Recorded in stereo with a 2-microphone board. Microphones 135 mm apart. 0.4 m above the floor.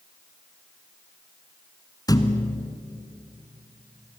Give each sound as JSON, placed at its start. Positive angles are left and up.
{"t": 2.1, "sound": "a thud", "side_deg": 25, "distance_m": 1.6}